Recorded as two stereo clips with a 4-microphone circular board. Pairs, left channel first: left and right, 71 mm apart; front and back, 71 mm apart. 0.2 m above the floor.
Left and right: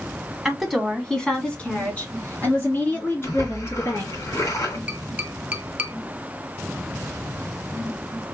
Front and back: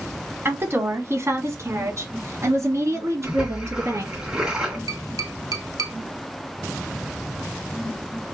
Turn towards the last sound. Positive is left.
turn(degrees=-160)